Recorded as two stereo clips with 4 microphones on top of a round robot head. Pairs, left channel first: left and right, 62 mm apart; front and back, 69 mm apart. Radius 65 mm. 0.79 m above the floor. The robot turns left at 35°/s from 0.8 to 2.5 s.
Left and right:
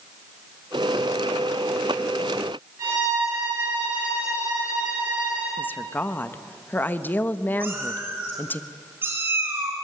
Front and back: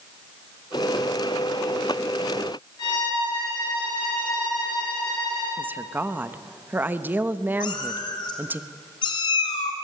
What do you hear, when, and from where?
2.8 s a violin: 40° right, 10 m
5.6 s a woman speaking: 130° left, 1.1 m
7.6 s a cat meowing: 25° right, 3 m